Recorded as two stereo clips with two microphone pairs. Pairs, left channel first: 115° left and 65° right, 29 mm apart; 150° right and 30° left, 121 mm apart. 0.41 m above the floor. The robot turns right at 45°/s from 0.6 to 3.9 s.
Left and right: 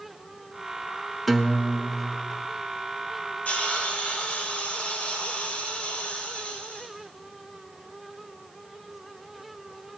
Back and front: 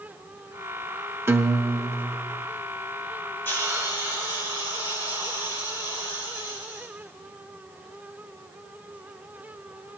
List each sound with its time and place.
1.3 s a guitar: 20° left, 0.6 m; by 2.4 s 70° left, 0.6 m
3.5 s a hiss: 135° left, 2.5 m; by 6.9 s 155° left, 2.5 m